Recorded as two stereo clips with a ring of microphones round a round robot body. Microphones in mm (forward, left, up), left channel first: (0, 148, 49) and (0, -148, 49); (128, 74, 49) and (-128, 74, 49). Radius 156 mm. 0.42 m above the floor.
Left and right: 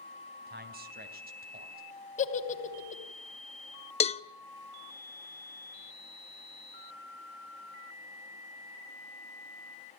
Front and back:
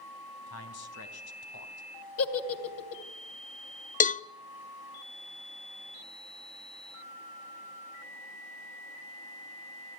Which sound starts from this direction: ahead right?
A man speaking, at 0.5 s.